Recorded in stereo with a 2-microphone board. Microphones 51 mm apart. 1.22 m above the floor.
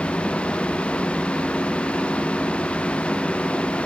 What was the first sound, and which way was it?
Only background noise.